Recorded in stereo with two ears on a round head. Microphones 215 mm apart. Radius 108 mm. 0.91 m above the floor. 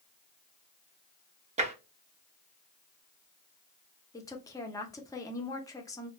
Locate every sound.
1.6 s tapping: 25° right (ahead or behind), 0.6 m
4.1 s a woman speaking: 15° left (ahead or behind), 0.7 m